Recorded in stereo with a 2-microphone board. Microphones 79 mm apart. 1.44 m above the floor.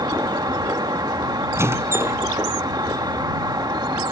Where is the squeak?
35° right (ahead or behind).